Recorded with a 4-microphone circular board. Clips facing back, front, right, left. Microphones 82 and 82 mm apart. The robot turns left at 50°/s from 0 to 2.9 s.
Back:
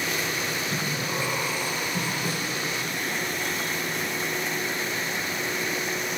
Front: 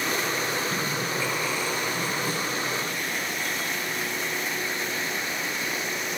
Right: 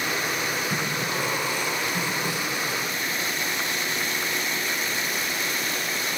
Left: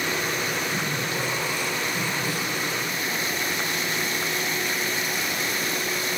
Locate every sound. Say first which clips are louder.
0.7 s breathing: front 1 dB, even; 80° right, 9 m; by 2.1 s 155° right, 9 m
2.2 s a snare drum: front 1 dB, even; 150° right, 8 m; by 2.5 s 165° right, 8 m